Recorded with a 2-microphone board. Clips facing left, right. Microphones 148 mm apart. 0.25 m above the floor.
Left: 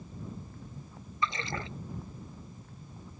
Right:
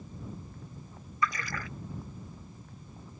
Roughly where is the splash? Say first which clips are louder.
Right 1 dB; left.